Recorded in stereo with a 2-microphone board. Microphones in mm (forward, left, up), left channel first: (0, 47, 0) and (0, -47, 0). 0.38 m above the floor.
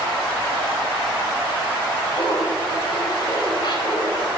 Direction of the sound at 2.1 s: 60° left (ahead or behind).